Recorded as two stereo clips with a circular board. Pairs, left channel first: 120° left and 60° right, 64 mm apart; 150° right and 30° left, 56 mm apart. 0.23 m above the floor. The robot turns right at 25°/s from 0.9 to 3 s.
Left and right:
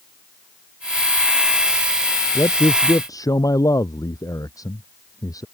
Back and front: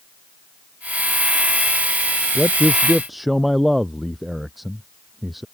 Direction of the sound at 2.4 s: 100° left.